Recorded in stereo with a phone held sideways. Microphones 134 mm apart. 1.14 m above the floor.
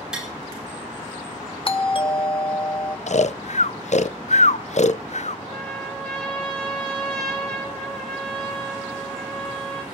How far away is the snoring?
About 0.5 m.